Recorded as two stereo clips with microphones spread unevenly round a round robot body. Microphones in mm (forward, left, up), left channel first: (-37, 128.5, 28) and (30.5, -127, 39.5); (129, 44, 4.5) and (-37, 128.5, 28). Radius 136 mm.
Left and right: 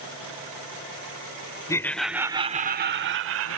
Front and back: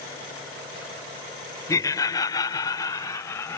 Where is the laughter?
35° left; by 3.6 s 100° right.